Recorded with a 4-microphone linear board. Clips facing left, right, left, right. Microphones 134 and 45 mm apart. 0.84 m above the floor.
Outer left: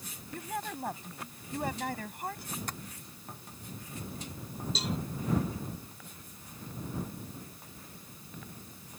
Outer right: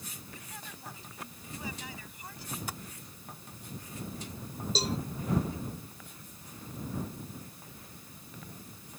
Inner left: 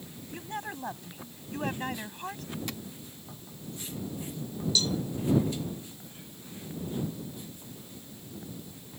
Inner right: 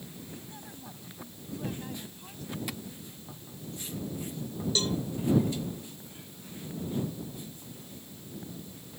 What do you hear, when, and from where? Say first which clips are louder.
0.3 s a woman speaking: outer left 11 dB, inner left 8 dB; 55° left (ahead or behind)
2.7 s tapping: even, even; 5° right (ahead or behind)
4.8 s a cowbell: outer right 3 dB, inner left 1 dB; 35° right (ahead or behind)